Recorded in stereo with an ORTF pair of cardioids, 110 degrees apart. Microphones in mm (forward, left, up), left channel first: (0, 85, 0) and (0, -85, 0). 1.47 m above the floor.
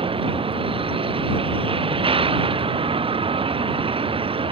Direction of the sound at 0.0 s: 30° right.